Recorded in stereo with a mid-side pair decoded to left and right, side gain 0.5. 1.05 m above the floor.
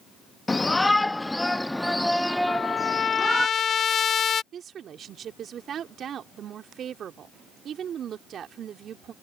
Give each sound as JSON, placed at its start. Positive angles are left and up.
{"t": 0.5, "sound": "a shout", "azimuth_deg": 20}
{"t": 2.5, "sound": "a trumpet", "azimuth_deg": 50}
{"t": 4.5, "sound": "a woman speaking", "azimuth_deg": -55}